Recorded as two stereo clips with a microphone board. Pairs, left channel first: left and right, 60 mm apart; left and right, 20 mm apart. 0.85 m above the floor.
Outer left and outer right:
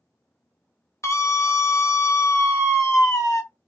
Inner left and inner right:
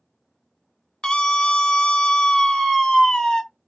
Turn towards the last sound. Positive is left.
turn(degrees=50)  # may be behind; listen again after turning